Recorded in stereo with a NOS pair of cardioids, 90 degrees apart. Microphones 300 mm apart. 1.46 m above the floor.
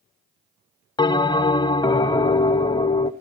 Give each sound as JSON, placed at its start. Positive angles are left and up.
{"t": 1.0, "sound": "a bell", "azimuth_deg": 15, "distance_m": 0.7}